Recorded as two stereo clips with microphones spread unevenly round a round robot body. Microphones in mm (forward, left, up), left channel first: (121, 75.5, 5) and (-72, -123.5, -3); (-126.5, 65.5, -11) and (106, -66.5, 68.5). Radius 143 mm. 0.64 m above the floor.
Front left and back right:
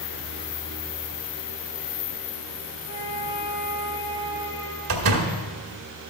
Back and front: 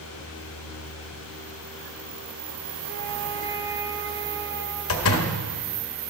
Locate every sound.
2.9 s a flute: 20° left, 2 m
4.9 s a door slam: 175° right, 1.3 m